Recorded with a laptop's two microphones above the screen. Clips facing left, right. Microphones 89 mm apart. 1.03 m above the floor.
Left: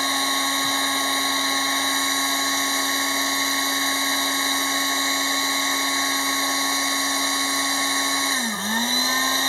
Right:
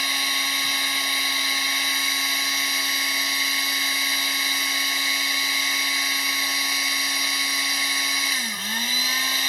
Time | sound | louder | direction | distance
0.0 | a machine running | left 5 dB | 30° left (ahead or behind) | ?